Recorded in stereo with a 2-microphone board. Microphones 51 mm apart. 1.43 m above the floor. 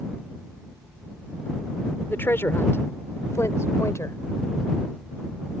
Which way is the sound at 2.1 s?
45° left (ahead or behind).